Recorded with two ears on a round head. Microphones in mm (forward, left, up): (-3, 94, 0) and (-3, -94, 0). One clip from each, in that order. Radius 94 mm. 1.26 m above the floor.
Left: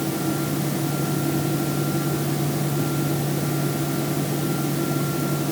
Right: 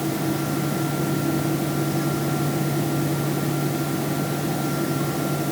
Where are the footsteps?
No footsteps in this recording.